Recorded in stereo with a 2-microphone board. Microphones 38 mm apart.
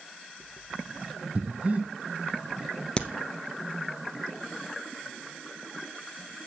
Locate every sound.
1.4 s breathing: 35° right (ahead or behind), 1.4 m
3.0 s a crack: 30° left (ahead or behind), 1.0 m